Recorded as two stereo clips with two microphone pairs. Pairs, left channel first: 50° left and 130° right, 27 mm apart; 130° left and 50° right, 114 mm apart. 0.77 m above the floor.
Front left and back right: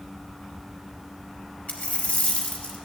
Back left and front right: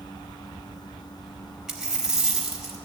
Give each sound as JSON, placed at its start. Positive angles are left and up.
{"t": 1.7, "sound": "a dropped coin", "azimuth_deg": 30, "distance_m": 1.0}